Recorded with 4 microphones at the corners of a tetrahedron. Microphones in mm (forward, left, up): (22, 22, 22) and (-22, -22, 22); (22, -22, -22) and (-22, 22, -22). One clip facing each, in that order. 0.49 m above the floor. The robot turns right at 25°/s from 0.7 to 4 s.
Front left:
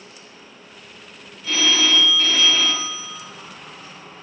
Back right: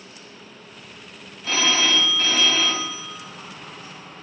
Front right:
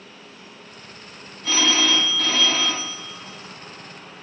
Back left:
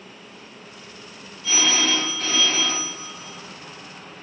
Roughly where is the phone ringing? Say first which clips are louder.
Front left 1 dB, front right 2 dB; right.